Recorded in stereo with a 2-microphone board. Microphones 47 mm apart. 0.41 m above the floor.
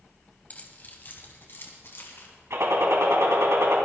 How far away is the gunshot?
About 2.5 m.